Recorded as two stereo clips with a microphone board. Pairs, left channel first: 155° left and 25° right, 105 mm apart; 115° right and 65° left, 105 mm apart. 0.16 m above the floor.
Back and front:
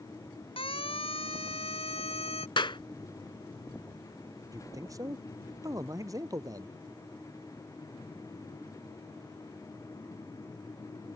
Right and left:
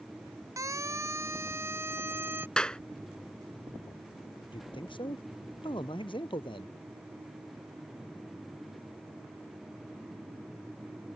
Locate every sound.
0.6 s a siren: 130° left; by 2.5 s 140° left
2.6 s a clap: 170° left
4.5 s a man speaking: 75° right